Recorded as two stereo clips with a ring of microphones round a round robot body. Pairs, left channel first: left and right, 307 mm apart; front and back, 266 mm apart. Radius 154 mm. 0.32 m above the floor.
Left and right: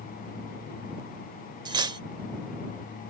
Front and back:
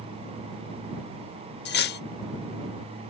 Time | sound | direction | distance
1.6 | cutlery clinking | 20° right | ?